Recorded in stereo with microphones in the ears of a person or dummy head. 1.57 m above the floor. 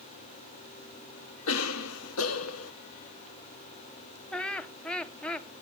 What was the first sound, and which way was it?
A cough, 75° left (ahead or behind).